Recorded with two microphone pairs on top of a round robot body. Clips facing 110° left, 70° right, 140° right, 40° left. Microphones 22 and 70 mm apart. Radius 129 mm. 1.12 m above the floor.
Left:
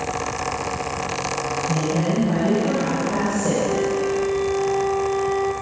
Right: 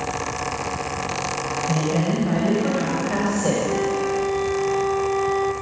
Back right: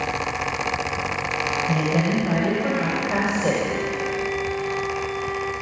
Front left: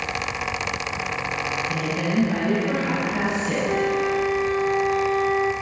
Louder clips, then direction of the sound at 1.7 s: Right 1 dB, back right 3 dB; 115° right.